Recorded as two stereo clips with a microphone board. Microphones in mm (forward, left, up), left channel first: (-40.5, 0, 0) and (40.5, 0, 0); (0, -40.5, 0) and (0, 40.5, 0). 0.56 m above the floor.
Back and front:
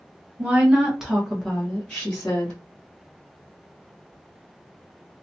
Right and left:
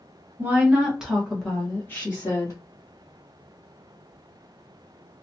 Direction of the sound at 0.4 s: 60° left.